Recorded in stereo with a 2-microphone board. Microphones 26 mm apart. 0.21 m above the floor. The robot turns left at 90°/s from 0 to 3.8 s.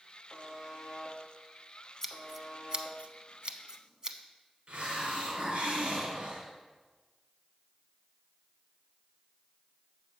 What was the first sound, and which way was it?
A buzzer, 140° right.